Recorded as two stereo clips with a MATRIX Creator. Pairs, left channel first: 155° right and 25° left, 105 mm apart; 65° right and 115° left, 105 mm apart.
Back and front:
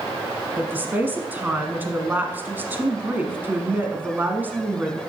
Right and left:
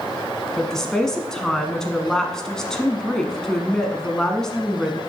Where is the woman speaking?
5° left, 1.1 m.